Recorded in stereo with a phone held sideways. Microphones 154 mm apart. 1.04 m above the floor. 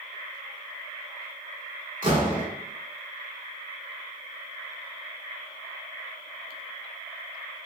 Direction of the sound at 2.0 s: 60° right (ahead or behind).